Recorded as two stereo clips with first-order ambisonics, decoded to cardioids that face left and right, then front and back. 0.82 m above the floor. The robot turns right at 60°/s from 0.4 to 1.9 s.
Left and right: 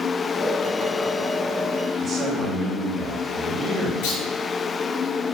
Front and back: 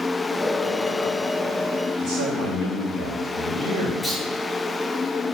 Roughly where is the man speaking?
Behind.